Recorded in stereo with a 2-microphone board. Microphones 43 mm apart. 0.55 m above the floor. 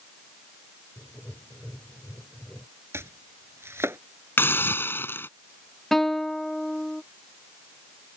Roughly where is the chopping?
Right.